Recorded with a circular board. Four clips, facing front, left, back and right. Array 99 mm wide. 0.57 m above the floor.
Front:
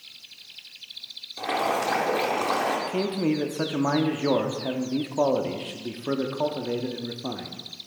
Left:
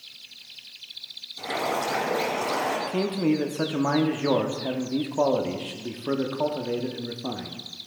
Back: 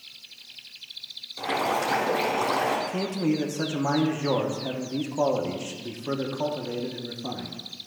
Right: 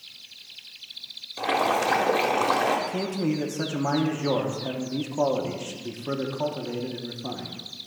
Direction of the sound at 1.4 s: 80° right.